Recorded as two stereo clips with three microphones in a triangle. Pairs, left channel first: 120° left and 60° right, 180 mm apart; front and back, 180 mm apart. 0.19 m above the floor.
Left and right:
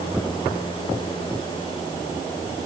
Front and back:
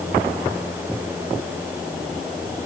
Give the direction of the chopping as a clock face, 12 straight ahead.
I don't hear chopping.